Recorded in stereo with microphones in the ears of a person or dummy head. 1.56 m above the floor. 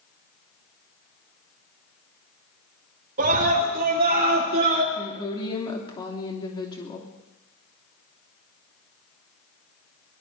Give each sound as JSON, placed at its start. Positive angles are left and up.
{"t": 3.2, "sound": "a scream", "side_deg": -45, "distance_m": 4.5}
{"t": 5.0, "sound": "a woman speaking", "side_deg": 25, "distance_m": 3.0}